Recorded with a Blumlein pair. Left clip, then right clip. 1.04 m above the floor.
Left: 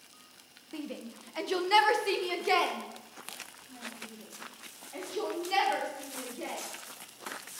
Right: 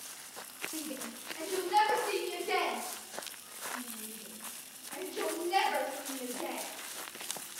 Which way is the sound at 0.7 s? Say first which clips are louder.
Even; 10° left.